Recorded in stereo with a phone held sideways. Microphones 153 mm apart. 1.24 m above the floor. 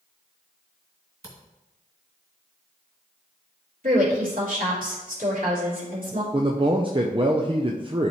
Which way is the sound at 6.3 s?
35° right (ahead or behind).